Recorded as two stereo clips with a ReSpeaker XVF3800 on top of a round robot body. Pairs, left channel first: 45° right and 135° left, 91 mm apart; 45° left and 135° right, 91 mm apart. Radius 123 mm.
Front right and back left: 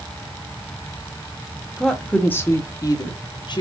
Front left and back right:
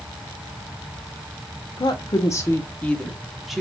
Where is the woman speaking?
45° left, 1.1 m; by 3.6 s 50° right, 1.4 m.